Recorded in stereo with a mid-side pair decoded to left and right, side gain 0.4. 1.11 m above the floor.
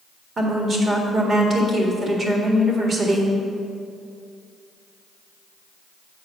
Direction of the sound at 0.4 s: 45° right.